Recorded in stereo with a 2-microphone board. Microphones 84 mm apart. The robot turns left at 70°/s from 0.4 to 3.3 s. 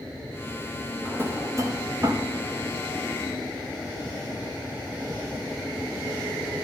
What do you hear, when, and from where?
1.1 s a drawer: 20° right (ahead or behind), 0.9 m; by 2.3 s 40° right (ahead or behind), 0.9 m